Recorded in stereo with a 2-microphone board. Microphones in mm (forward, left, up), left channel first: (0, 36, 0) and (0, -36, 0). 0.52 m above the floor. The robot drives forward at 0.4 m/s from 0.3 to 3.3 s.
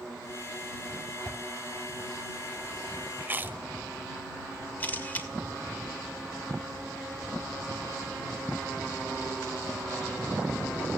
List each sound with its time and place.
1.2 s a whoosh: 15° left (ahead or behind), 3.5 m
3.2 s chewing: 25° right (ahead or behind), 1.5 m
4.8 s a camera shutter: 25° left (ahead or behind), 2 m